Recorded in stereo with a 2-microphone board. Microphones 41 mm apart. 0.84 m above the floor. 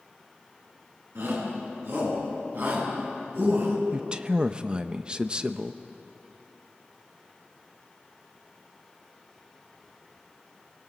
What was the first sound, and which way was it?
A shout, 65° right (ahead or behind).